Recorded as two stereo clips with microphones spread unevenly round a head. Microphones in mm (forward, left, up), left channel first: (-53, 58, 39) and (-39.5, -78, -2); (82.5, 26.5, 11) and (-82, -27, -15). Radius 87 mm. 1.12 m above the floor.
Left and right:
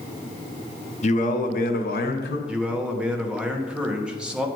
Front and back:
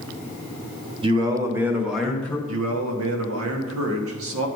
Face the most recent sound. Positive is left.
turn(degrees=-165)